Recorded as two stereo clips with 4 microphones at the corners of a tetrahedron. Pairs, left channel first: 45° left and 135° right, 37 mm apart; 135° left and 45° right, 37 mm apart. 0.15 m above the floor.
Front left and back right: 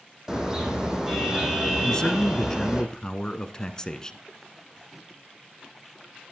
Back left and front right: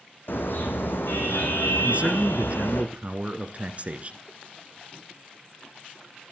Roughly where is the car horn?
Behind left.